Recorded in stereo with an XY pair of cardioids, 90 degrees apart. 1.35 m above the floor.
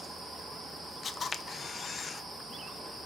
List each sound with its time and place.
1.0 s a camera shutter: 55° left, 0.9 m